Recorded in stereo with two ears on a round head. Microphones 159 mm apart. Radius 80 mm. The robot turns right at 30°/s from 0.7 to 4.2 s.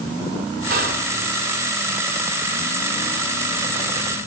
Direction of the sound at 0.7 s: 50° right (ahead or behind).